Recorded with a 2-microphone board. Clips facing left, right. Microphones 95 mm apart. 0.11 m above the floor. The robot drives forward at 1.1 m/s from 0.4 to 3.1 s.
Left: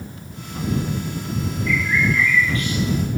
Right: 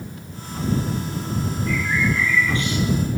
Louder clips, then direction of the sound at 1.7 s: Left 2 dB; 45° right (ahead or behind).